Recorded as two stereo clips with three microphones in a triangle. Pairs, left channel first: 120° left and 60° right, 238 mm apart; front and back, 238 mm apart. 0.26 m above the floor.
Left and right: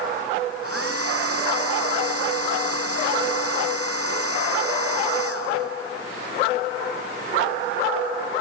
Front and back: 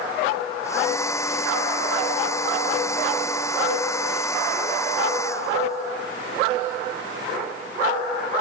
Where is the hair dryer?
80° right.